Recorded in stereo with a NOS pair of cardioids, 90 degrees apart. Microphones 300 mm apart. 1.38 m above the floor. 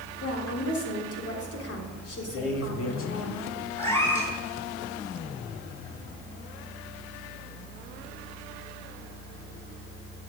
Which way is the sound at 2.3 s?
45° left.